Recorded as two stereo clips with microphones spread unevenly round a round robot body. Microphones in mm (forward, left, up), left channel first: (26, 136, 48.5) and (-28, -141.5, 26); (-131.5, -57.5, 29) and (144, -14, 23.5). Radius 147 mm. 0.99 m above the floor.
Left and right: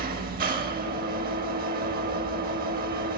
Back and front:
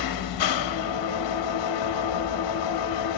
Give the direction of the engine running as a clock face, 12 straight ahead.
5 o'clock.